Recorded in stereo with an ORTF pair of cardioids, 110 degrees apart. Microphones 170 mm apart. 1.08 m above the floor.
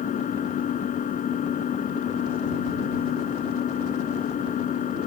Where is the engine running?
55° left.